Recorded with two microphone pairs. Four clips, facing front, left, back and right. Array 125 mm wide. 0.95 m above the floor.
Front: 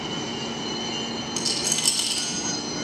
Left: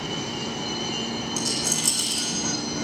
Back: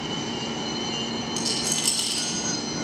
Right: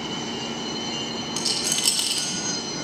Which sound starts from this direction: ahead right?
A rattle, at 1.4 s.